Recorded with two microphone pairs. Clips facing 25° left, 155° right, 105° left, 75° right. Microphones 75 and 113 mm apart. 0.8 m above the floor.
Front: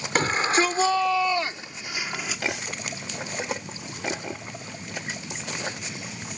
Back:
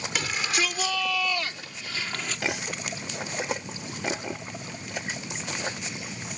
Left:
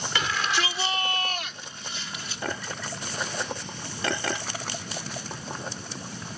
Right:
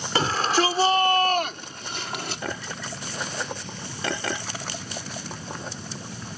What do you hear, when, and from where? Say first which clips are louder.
0.1 s a shout: front 7 dB, right 6 dB; 25° right; by 2.4 s 55° right